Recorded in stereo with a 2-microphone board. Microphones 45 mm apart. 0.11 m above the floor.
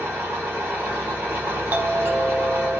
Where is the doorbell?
45° right (ahead or behind), 4 m.